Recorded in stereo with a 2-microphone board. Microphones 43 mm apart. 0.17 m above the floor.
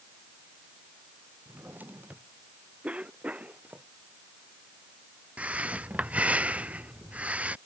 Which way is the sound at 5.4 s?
35° right (ahead or behind).